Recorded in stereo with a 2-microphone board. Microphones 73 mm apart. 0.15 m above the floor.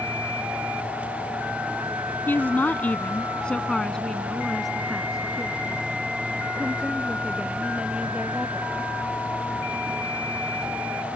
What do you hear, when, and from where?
2.3 s a woman speaking: 25° left (ahead or behind); by 8.9 s 15° right (ahead or behind)